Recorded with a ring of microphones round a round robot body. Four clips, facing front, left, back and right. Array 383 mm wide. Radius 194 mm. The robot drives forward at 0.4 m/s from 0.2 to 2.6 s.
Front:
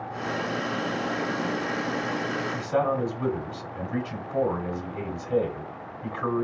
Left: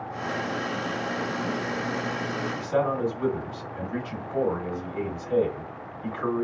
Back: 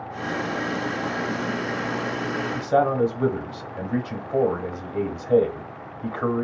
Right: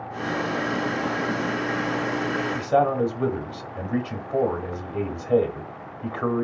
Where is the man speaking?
145° right, 1.4 m.